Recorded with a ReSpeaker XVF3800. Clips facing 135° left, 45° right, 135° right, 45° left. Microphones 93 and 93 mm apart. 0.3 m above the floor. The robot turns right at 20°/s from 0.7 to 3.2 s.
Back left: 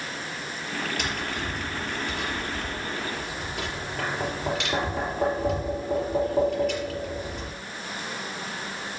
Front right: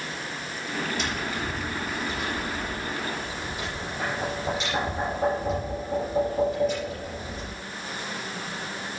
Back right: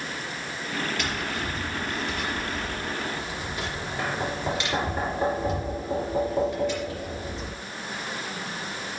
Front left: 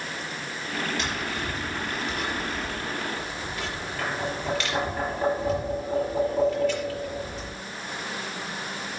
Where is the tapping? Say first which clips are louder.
Front right 1 dB, even; 110° left, 5.5 m; by 7.6 s 155° left, 5.5 m.